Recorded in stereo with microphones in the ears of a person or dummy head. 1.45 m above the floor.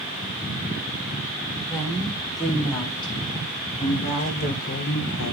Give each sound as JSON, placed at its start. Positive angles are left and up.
{"t": 1.6, "sound": "a woman speaking", "side_deg": 20, "distance_m": 5.0}